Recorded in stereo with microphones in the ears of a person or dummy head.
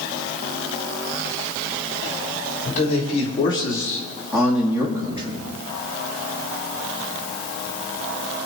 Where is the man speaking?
40° left (ahead or behind), 3 m; by 5.5 s 35° right (ahead or behind), 3 m.